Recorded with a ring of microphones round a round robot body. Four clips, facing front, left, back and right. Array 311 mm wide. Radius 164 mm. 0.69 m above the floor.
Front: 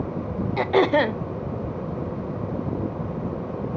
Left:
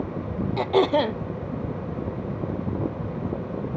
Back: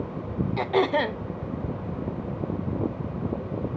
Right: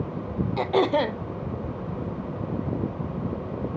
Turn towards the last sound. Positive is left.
turn(degrees=10)